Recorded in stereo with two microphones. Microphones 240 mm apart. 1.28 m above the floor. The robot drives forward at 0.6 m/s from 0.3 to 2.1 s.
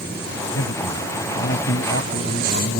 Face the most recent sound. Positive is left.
turn(degrees=55)  # may be behind; listen again after turning